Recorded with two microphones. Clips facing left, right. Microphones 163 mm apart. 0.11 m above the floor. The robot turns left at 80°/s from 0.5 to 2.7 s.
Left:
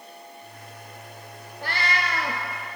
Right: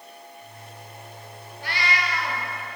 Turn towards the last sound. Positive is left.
turn(degrees=30)